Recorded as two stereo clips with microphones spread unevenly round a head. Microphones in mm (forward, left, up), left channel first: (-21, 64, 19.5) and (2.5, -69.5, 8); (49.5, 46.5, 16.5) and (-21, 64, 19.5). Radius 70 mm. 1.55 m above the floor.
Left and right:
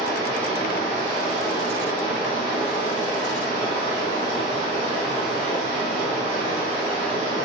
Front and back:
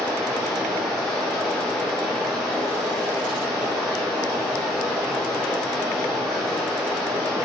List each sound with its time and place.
0.0 s running water: 110° right, 0.8 m